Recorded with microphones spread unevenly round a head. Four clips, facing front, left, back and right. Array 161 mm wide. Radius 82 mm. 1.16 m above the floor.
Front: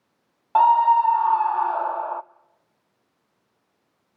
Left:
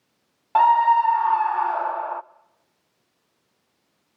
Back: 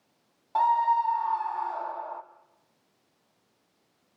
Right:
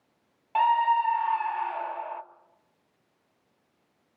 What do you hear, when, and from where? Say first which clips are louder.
0.6 s a scream: left 7 dB, front 7 dB; 40° left, 0.7 m